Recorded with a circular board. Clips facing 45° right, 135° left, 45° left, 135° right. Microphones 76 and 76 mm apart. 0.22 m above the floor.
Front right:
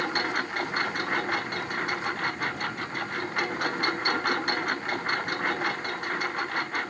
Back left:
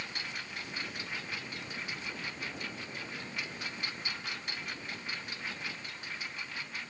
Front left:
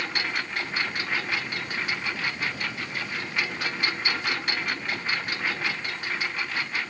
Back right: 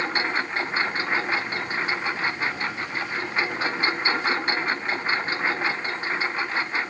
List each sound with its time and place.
0.0 s a lawn mower: 75° right